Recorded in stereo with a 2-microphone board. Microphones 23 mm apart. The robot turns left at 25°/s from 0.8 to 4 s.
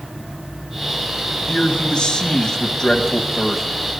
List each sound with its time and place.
1.5 s a man speaking: 60° left, 1.8 m; by 3.6 s 10° left, 1.8 m